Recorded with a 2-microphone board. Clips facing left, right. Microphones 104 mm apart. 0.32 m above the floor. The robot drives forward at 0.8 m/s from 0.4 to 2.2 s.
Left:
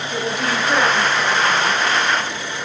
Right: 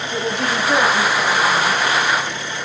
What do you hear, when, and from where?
0.1 s a woman speaking: centre (ahead or behind), 1.8 m